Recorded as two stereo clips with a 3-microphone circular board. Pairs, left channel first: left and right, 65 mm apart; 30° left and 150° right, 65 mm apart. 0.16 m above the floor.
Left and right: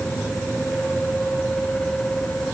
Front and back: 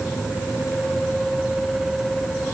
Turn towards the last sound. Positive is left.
No sound to turn to.